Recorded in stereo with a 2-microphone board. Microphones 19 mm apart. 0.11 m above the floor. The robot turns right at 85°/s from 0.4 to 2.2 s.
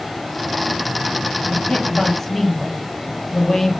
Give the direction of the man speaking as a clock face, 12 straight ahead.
9 o'clock.